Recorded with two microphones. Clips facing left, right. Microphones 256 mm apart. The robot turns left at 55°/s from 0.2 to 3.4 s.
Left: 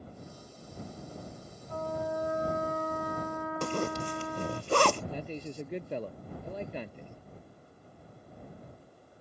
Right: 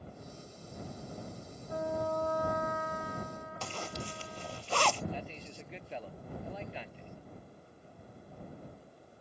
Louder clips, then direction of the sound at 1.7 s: Even; 165° right.